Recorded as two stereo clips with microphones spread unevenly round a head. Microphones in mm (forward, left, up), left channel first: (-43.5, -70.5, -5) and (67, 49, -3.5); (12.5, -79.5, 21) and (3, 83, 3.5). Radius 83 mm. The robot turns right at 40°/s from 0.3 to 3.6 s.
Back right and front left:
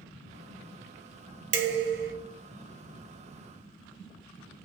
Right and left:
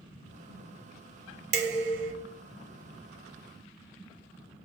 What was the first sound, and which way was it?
Dishes clattering, 60° left.